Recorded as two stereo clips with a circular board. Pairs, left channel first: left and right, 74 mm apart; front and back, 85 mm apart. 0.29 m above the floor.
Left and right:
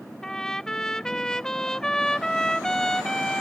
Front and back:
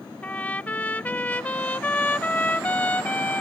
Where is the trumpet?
25° left.